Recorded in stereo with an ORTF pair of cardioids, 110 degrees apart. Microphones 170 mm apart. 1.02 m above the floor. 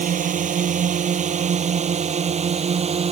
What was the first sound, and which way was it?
A drone, 50° right.